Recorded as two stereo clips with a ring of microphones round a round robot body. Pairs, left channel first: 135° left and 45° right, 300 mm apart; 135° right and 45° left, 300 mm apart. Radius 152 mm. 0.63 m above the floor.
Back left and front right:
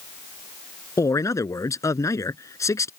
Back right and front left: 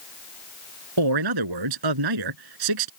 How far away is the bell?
No bell in this recording.